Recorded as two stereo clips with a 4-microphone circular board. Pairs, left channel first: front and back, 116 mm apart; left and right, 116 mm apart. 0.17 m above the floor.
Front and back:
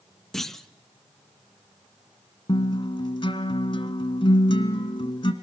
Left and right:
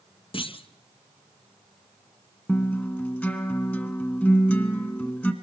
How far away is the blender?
I don't hear a blender.